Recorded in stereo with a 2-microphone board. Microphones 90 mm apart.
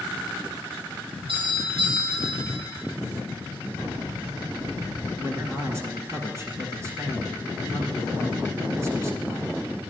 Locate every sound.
1.3 s a doorbell: 75° right (ahead or behind), 4.5 m
3.8 s keys jangling: 60° right (ahead or behind), 6 m
5.2 s a man speaking: 30° right (ahead or behind), 1.9 m